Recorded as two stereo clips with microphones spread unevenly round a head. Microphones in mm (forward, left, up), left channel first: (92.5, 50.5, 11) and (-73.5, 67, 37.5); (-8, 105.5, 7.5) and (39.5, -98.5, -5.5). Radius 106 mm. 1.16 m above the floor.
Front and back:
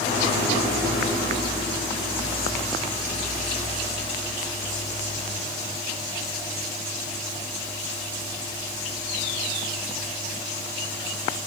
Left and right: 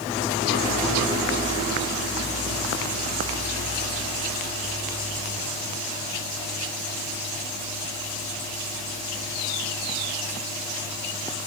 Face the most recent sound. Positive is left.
No sound to turn to.